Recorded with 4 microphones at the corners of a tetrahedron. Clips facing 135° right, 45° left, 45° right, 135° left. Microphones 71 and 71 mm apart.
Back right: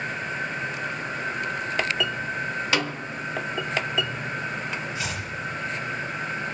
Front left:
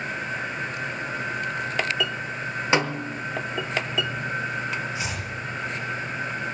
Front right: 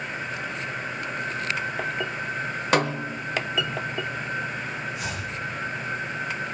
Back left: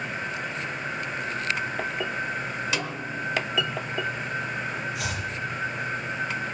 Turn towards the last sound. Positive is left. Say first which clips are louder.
# even, back left 1 dB
turn(degrees=115)